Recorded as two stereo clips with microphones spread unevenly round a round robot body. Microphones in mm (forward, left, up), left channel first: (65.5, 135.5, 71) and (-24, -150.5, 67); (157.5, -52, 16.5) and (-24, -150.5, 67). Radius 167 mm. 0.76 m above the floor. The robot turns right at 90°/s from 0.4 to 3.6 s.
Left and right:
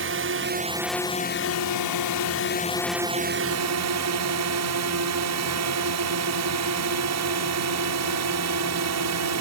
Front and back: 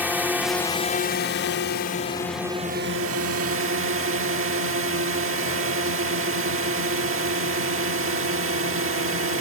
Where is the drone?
65° right; by 9.4 s 135° right.